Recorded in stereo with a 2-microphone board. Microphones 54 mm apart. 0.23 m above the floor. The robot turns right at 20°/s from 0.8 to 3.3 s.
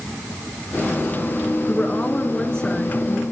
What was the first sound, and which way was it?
A woman speaking, 145° left.